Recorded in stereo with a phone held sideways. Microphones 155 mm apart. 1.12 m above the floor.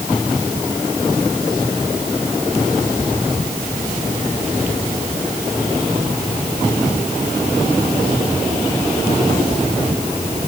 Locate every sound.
Only background noise.